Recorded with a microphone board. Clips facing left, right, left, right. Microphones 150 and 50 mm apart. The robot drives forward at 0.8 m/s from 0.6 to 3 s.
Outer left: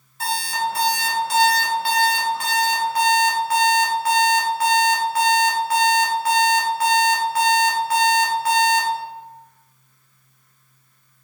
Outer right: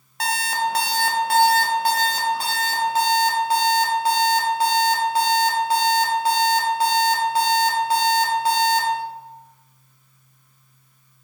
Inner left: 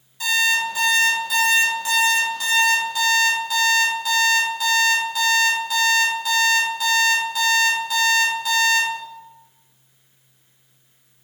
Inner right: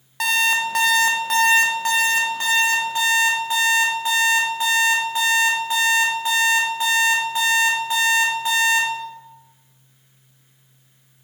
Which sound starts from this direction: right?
An alarm clock, at 0.2 s.